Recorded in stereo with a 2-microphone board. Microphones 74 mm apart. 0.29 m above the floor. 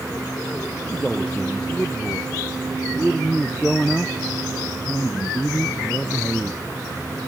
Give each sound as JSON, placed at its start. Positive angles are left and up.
{"t": 0.8, "sound": "a man speaking", "side_deg": 5}